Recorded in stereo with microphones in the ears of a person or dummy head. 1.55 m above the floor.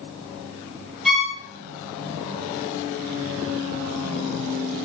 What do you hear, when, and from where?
1.1 s a violin: 5° right (ahead or behind), 0.9 m